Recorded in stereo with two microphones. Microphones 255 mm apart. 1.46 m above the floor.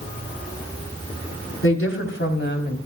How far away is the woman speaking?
About 4 m.